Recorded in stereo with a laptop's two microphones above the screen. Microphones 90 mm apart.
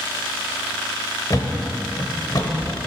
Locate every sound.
1.3 s a thud: 45° left (ahead or behind), 1.0 m